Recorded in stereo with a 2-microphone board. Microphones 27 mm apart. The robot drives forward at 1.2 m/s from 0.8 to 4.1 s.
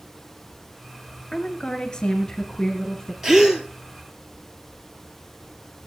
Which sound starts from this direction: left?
A woman speaking, at 1.3 s.